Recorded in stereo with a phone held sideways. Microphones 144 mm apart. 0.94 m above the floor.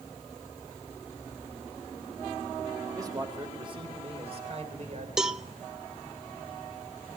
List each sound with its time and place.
2.9 s a man speaking: 25° right (ahead or behind), 4 m; by 5.1 s 55° right (ahead or behind), 4 m
5.2 s a cowbell: 5° right (ahead or behind), 0.7 m